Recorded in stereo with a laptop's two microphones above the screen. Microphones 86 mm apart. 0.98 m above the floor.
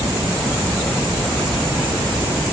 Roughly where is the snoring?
I don't hear snoring.